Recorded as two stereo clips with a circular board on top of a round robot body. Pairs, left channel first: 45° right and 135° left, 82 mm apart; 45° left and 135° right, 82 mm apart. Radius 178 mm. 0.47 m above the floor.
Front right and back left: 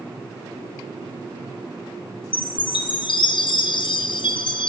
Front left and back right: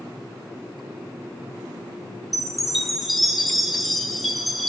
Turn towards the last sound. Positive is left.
turn(degrees=-45)